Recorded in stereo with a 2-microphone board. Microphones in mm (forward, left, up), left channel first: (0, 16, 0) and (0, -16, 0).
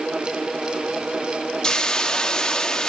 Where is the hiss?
20° left (ahead or behind), 0.9 m.